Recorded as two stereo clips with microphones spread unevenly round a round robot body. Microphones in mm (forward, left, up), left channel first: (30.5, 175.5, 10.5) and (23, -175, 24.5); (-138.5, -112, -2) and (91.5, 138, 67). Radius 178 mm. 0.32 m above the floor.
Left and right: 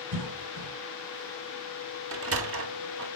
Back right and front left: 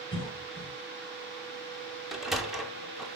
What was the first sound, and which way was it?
A cough, 65° right.